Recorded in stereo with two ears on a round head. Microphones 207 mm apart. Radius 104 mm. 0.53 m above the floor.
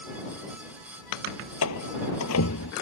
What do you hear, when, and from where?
1.6 s a door slam: 70° left (ahead or behind)